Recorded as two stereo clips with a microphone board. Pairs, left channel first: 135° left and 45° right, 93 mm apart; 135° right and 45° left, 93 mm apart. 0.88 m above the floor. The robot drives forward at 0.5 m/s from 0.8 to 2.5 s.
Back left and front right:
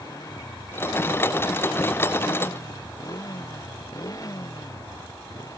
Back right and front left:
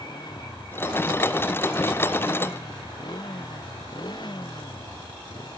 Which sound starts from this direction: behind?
A motorcycle, at 0.0 s.